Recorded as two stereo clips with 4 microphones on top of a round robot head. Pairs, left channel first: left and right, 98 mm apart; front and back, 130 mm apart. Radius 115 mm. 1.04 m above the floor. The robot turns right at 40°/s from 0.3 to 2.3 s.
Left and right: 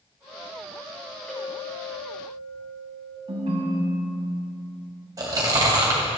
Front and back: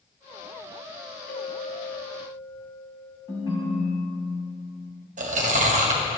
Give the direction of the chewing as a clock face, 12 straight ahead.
5 o'clock.